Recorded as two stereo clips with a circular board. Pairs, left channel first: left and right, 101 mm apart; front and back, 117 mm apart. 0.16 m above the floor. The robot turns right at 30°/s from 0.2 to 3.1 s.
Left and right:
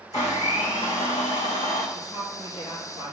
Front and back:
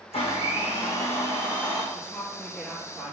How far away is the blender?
About 2.5 m.